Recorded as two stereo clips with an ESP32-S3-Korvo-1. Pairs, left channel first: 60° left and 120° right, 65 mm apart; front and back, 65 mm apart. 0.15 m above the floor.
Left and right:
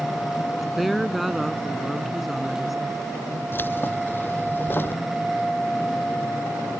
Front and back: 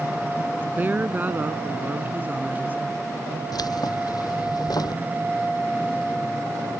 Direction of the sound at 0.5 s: 155° left.